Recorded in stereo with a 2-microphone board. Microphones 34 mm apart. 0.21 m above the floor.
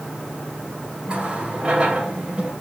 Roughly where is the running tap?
Right.